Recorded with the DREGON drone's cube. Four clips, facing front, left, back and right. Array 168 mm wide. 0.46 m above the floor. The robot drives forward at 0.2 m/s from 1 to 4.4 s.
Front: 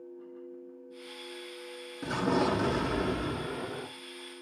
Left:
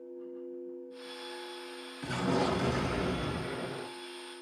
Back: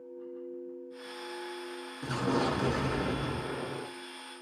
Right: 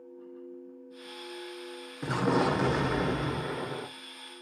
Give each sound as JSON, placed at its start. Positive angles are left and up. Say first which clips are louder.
{"t": 2.0, "sound": "an explosion", "louder": "right 4 dB, front 2 dB", "azimuth_deg": -75, "distance_m": 1.4}